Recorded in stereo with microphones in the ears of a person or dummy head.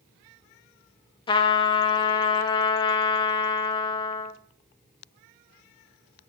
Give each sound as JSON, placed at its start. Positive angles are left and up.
{"t": 1.3, "sound": "a trumpet", "side_deg": 30, "distance_m": 0.6}